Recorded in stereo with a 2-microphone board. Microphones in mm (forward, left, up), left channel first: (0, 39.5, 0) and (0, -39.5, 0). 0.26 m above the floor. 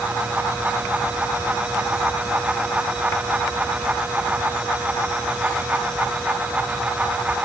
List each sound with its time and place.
Only background noise.